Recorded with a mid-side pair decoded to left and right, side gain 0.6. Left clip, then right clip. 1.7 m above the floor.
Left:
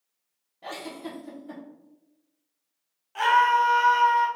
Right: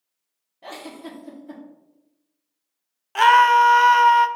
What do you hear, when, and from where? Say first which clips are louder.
0.6 s a giggle: even; 5° right, 1.2 m
3.1 s a scream: right 7 dB; 55° right, 0.5 m